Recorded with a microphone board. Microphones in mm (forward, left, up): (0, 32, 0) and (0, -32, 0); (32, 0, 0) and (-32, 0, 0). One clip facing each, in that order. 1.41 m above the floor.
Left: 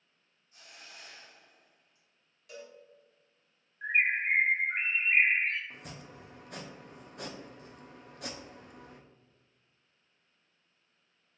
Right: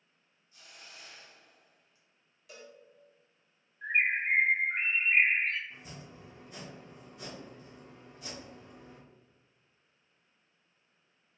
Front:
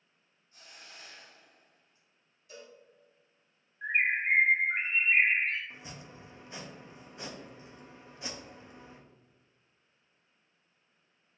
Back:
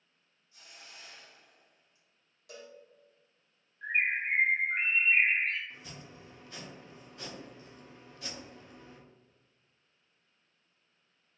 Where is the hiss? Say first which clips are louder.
Left 1 dB, front 1 dB; 45° left, 1.7 m.